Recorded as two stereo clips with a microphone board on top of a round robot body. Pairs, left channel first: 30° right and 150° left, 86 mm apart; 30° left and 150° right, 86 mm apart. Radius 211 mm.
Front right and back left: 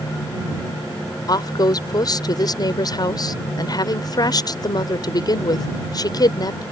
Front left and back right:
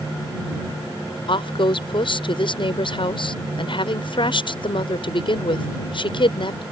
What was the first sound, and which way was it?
A woman speaking, 10° left.